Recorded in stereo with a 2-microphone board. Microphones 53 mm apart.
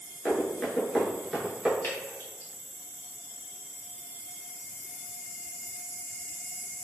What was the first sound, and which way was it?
Running footsteps, 25° left (ahead or behind).